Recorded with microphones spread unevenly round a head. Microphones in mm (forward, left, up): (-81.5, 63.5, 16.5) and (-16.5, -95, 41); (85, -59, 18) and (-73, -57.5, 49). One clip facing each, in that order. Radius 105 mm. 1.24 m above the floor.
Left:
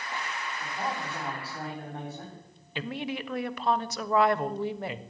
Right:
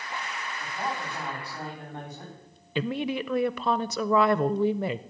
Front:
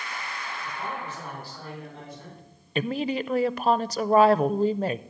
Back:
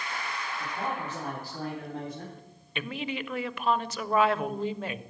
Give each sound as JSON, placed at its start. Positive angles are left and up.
{"t": 0.6, "sound": "a man speaking", "azimuth_deg": -165, "distance_m": 4.5}
{"t": 2.8, "sound": "a woman speaking", "azimuth_deg": -55, "distance_m": 0.6}